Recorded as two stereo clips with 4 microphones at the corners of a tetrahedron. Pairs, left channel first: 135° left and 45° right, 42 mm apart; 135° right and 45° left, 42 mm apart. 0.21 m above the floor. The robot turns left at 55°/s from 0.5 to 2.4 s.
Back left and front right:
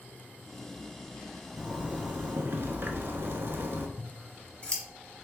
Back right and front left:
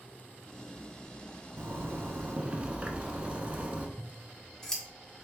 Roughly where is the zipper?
Ahead left.